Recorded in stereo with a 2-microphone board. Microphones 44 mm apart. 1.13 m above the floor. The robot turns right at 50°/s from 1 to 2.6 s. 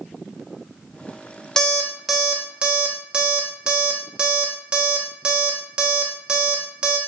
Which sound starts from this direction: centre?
An alarm clock, at 1.6 s.